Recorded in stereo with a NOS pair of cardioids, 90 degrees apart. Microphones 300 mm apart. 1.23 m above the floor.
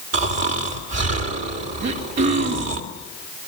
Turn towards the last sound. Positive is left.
turn(degrees=-60)